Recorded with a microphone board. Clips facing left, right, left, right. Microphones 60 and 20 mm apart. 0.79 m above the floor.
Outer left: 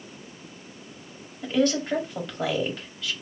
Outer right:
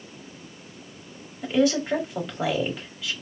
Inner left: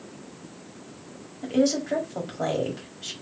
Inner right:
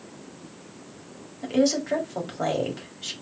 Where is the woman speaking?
10° right (ahead or behind), 1.8 m.